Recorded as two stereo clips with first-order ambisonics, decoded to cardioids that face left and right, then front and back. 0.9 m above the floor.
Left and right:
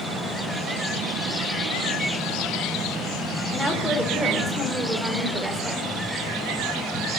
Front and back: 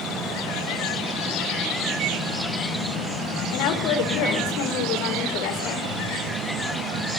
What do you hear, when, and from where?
3.5 s a woman speaking: 15° right, 3.5 m